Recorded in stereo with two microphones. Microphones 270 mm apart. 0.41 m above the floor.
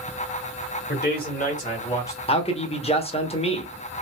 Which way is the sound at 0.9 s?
40° left (ahead or behind).